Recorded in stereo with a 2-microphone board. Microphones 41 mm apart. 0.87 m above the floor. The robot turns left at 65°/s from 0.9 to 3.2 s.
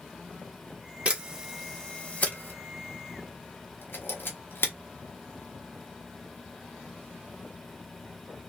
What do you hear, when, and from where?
1.1 s a camera shutter: 30° right (ahead or behind), 1.3 m; by 4.7 s 60° left (ahead or behind), 1.3 m